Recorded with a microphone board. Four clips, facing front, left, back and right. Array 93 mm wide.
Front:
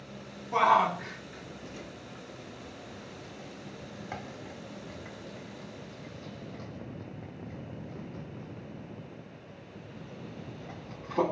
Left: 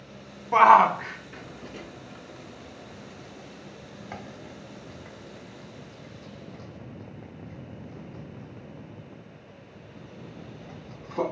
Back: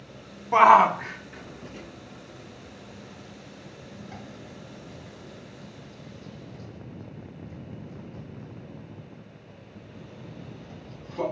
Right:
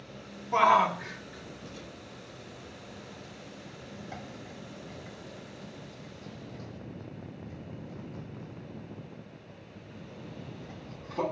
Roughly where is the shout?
Behind left.